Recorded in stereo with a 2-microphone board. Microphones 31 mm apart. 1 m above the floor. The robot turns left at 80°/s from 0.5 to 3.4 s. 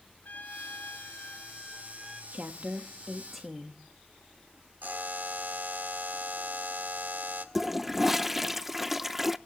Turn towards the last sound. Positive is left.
turn(degrees=-5)  # may be behind; listen again after turning